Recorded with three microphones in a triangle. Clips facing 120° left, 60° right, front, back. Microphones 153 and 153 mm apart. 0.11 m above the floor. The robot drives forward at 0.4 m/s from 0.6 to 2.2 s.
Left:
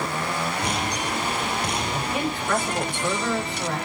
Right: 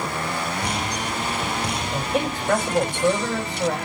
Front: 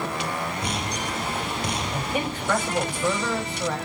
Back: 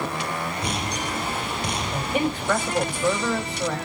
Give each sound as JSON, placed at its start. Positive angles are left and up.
{"t": 1.9, "sound": "a man speaking", "azimuth_deg": -100, "distance_m": 6.0}